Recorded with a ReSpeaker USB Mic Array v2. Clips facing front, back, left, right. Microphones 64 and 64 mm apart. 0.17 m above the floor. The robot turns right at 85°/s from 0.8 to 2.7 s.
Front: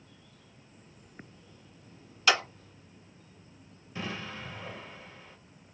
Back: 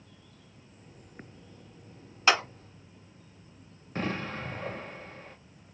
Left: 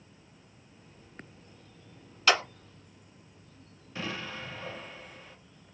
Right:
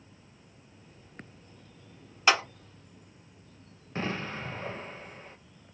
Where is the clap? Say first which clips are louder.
Back 2 dB, right 1 dB; 145° right, 1.4 m; by 2.4 s 130° right, 1.4 m.